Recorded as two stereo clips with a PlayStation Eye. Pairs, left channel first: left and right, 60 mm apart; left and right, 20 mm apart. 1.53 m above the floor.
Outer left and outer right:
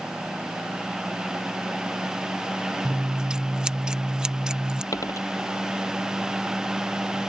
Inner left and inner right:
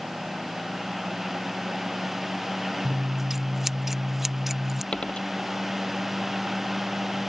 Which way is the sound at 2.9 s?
15° right (ahead or behind).